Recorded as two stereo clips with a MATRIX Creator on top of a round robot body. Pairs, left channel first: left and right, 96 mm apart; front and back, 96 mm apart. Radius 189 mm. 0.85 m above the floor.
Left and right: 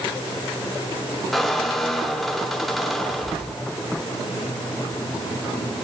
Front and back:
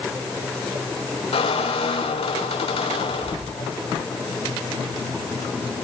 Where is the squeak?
Straight ahead, 3 m.